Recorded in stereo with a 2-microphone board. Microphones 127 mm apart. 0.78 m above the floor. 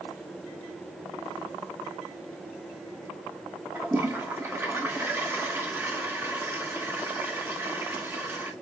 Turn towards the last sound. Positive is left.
turn(degrees=-20)  # may be behind; listen again after turning